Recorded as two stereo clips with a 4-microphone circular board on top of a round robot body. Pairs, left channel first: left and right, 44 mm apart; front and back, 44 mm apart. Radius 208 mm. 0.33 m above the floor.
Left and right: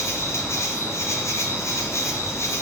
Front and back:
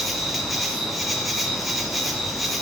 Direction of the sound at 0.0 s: 95° left.